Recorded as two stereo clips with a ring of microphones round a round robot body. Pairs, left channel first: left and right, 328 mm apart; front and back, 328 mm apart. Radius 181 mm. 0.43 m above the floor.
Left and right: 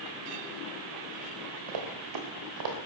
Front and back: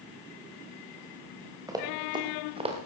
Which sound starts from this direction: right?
Running footsteps, at 1.7 s.